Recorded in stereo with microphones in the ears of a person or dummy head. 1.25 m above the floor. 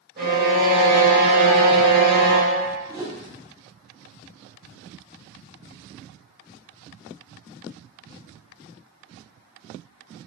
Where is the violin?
45° right (ahead or behind), 1.4 m.